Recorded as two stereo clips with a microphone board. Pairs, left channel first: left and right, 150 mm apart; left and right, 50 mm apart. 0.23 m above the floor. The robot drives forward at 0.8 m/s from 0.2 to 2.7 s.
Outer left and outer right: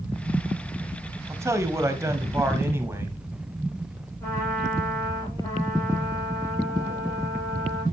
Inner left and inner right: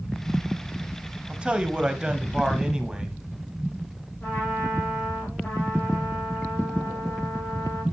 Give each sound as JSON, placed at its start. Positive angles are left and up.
{"t": 1.3, "sound": "a man speaking", "side_deg": -20, "distance_m": 1.2}
{"t": 4.2, "sound": "a trumpet", "side_deg": 20, "distance_m": 7.0}